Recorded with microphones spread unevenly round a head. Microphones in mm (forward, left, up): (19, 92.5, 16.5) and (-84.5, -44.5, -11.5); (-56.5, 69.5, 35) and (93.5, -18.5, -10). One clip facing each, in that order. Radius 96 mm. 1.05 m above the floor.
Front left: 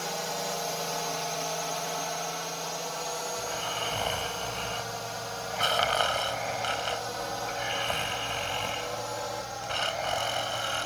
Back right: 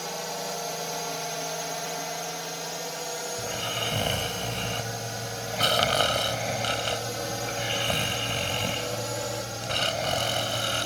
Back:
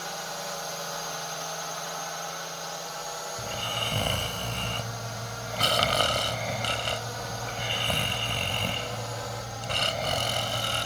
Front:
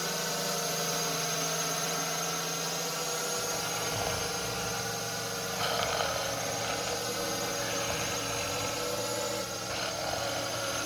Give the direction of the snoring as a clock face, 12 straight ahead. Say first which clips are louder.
Back right 1 dB, even; 6 o'clock.